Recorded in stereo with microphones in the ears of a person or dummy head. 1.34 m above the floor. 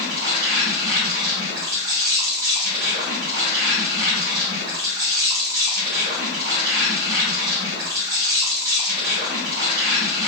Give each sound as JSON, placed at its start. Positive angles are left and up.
{"t": 0.0, "sound": "an insect", "side_deg": -50, "distance_m": 1.0}